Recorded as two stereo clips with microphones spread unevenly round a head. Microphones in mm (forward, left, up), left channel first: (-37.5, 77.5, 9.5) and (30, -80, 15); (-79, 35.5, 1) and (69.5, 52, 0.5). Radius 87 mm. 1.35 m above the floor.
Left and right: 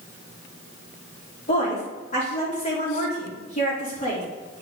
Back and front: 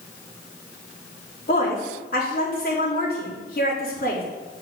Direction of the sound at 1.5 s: 160° left.